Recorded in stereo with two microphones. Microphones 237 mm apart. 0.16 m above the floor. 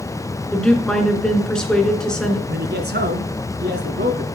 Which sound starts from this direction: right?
A man speaking, at 2.5 s.